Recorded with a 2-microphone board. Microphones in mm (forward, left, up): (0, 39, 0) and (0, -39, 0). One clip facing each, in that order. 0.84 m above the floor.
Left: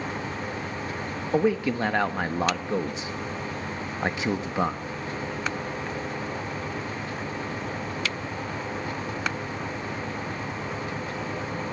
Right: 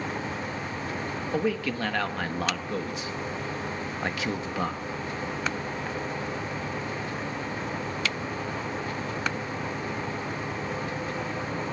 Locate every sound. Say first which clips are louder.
1.3 s a man speaking: left 5 dB; 20° left (ahead or behind), 1.1 m